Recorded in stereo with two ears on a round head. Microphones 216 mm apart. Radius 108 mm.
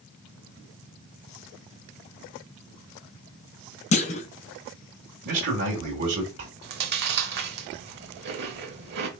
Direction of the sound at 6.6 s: 45° right (ahead or behind).